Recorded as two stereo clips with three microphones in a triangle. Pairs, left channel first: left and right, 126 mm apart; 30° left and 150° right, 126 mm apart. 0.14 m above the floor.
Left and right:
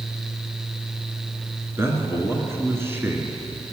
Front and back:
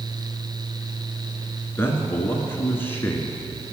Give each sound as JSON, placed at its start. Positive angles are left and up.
{"t": 1.8, "sound": "a man speaking", "azimuth_deg": -35, "distance_m": 1.4}